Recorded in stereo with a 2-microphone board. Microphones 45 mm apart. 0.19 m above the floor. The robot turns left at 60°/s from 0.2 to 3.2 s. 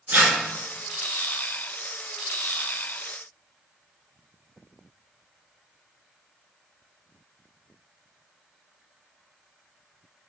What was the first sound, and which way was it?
Tearing paper, 50° right (ahead or behind).